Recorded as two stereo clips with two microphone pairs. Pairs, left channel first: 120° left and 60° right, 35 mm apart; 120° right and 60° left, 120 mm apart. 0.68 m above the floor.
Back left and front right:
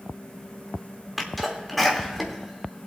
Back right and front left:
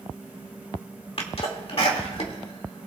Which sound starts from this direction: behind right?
A sneeze, at 1.2 s.